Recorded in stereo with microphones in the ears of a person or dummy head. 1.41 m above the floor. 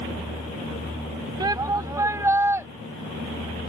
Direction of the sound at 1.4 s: 20° right (ahead or behind).